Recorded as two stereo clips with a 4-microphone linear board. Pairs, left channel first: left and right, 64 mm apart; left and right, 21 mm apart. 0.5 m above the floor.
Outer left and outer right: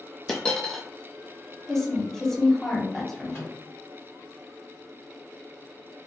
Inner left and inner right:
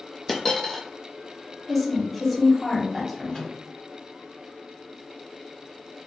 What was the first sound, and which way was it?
A dropped coin, 15° left (ahead or behind).